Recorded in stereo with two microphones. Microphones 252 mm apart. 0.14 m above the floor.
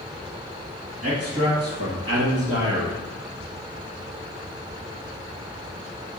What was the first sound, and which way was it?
A man speaking, 50° right (ahead or behind).